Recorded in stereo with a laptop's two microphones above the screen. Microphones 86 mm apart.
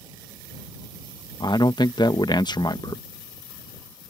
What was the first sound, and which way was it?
A man speaking, 55° left (ahead or behind).